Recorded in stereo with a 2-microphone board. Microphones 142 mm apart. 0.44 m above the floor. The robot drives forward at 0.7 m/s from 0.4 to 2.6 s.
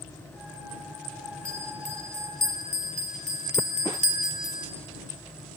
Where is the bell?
80° left, 1.5 m; by 4.7 s 65° left (ahead or behind), 1.6 m.